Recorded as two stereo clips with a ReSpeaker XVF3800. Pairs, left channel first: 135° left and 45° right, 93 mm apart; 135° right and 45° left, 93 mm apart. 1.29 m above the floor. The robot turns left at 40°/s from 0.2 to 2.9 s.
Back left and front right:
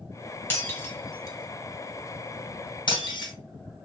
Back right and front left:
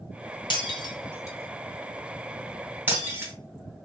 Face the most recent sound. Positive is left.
turn(degrees=110)